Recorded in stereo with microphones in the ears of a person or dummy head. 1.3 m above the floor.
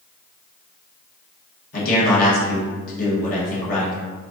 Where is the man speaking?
50° left (ahead or behind), 1.4 m.